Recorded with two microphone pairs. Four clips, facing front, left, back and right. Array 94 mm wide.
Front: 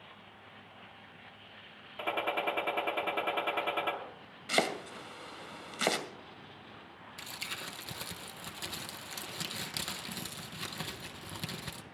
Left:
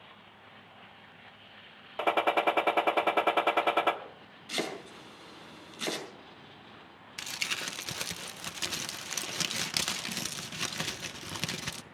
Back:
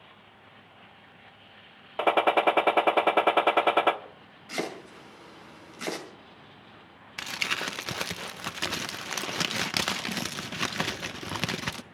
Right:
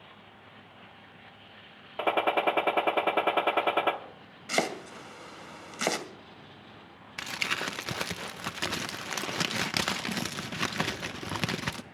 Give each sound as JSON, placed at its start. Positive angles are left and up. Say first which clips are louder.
{"t": 2.0, "sound": "a gunshot", "louder": "right 1 dB, back 11 dB", "azimuth_deg": 180, "distance_m": 0.9}
{"t": 4.5, "sound": "chopping", "louder": "right 6 dB, front 2 dB", "azimuth_deg": -55, "distance_m": 2.0}
{"t": 7.2, "sound": "crumpling", "louder": "right 6 dB, back 12 dB", "azimuth_deg": -130, "distance_m": 0.6}